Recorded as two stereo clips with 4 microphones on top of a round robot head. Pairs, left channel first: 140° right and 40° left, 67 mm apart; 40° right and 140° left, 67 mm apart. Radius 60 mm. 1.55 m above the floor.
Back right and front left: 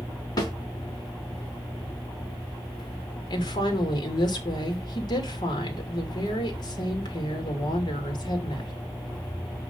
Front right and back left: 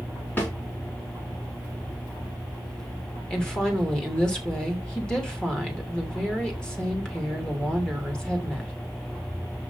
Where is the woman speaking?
120° right, 3 m.